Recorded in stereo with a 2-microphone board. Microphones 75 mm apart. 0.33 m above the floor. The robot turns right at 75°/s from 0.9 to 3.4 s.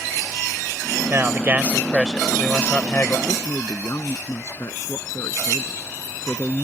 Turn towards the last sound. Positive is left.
turn(degrees=45)  # may be behind; listen again after turning